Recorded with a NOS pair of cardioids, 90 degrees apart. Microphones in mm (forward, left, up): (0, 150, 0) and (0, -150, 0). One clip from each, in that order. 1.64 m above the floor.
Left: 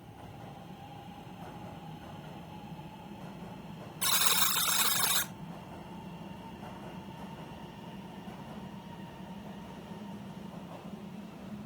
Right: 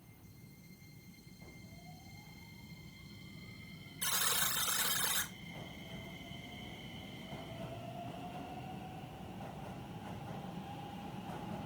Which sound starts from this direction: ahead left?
A buzzer, at 4.0 s.